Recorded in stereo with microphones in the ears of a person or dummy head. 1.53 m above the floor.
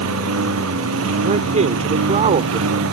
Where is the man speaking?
30° right (ahead or behind).